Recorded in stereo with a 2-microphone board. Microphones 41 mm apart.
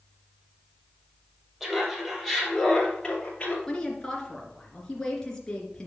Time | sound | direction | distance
1.6 | laughter | 10° right (ahead or behind) | 3.5 m
3.7 | a woman speaking | 20° left (ahead or behind) | 2.5 m